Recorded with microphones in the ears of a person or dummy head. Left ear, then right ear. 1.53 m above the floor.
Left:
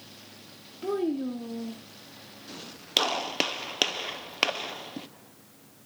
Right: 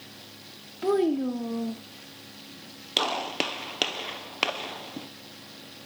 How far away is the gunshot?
About 0.8 m.